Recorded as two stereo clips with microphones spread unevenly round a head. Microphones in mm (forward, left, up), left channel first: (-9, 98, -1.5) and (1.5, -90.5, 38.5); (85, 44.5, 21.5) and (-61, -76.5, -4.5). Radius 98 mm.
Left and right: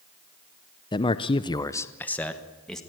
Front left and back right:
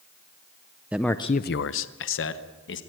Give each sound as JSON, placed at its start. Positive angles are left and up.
{"t": 0.9, "sound": "a man speaking", "azimuth_deg": 145, "distance_m": 0.8}